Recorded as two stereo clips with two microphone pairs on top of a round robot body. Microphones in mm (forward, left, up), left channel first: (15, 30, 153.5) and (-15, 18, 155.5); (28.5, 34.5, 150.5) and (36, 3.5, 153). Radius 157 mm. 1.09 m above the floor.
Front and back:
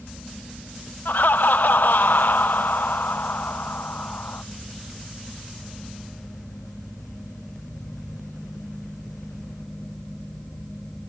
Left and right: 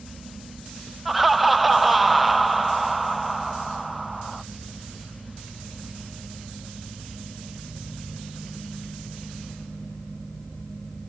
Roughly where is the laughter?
Ahead.